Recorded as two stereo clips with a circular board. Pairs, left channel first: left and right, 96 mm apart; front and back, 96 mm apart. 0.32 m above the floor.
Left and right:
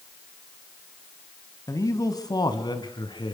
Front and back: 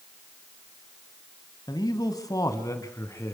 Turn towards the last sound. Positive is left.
turn(degrees=60)